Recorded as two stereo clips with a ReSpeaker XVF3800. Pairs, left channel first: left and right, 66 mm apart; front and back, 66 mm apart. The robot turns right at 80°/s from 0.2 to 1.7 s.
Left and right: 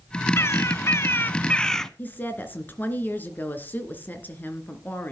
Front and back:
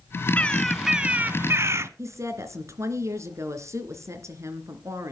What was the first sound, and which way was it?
A bird, 60° left.